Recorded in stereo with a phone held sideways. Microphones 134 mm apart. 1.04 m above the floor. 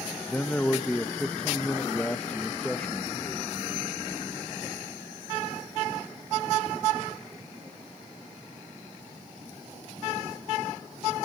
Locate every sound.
0.3 s a man speaking: 10° left (ahead or behind), 0.9 m